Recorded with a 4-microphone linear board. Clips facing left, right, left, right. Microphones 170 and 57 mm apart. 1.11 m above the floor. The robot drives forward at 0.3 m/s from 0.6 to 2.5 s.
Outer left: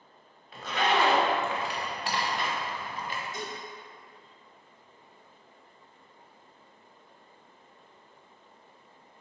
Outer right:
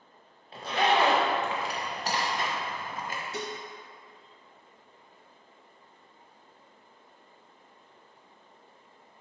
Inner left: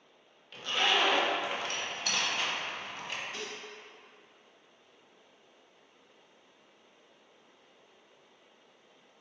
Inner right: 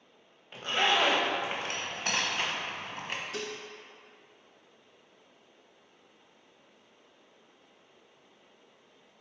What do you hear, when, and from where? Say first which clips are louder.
0.5 s a zipper: outer right 2 dB, inner right 2 dB; 30° right (ahead or behind), 1.3 m; by 3.2 s 45° right (ahead or behind), 0.9 m
3.3 s dishes clattering: outer right 2 dB, inner right 3 dB; 75° right (ahead or behind), 0.7 m